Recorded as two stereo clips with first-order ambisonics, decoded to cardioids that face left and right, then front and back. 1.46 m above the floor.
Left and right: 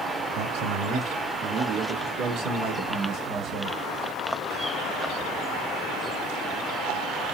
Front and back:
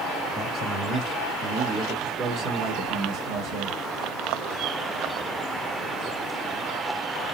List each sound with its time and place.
0.3 s a man speaking: 100° right, 2.5 m; by 3.8 s 140° right, 1.9 m